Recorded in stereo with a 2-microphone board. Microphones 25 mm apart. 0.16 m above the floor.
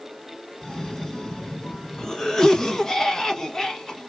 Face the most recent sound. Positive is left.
turn(degrees=25)  # may be behind; listen again after turning